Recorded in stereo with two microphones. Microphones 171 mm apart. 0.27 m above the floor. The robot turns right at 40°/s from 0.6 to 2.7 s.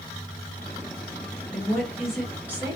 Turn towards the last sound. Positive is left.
turn(degrees=-10)  # may be behind; listen again after turning